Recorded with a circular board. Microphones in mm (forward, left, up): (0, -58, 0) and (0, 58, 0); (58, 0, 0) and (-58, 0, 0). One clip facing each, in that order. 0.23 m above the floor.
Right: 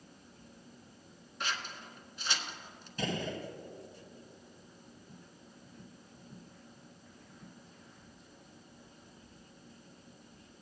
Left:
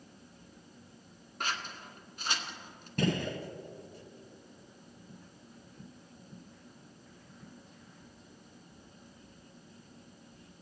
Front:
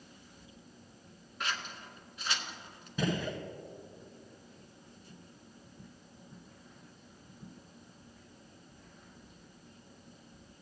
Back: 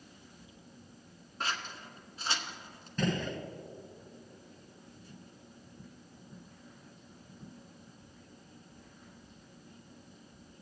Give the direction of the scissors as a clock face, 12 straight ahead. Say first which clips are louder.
Left 1 dB, back 1 dB; 8 o'clock.